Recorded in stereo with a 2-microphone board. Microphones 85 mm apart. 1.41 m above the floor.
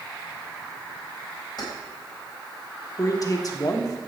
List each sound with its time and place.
1.6 s keys jangling: 50° left (ahead or behind), 4 m
3.0 s a man speaking: 45° left (ahead or behind), 1.3 m